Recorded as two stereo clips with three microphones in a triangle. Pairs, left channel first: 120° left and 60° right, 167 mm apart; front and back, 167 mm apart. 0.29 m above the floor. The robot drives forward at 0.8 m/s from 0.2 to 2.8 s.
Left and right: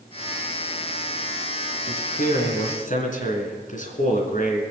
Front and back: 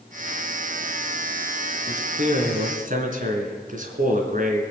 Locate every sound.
1.9 s a man speaking: 145° left, 2.5 m; by 4.6 s 150° left, 3 m